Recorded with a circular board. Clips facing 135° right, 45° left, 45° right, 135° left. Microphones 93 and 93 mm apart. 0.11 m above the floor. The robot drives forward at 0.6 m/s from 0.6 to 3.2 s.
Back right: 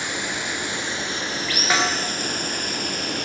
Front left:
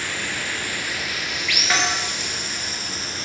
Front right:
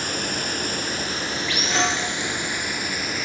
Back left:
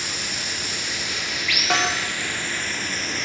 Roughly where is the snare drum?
Behind left.